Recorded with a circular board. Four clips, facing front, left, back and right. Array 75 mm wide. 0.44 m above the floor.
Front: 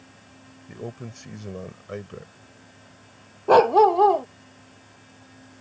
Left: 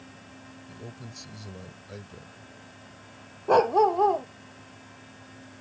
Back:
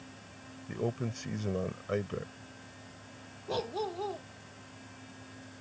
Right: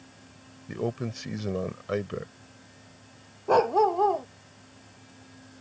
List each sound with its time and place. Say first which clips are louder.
0.7 s a man speaking: right 15 dB, back 2 dB; 100° right
3.5 s a dog barking: left 1 dB, front 20 dB; 5° left